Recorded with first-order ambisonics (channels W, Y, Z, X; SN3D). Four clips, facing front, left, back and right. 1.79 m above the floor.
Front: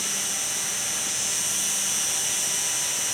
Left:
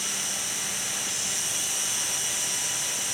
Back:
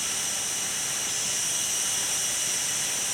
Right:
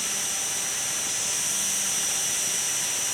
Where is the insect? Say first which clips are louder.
Right 1 dB, front 2 dB; straight ahead, 4 m.